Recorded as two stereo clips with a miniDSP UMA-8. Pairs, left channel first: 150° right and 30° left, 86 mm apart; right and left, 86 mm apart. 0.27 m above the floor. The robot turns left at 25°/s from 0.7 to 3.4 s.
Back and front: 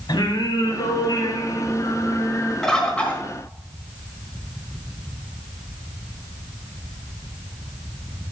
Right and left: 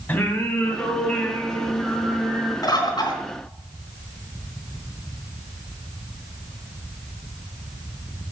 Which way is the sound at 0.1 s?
150° right.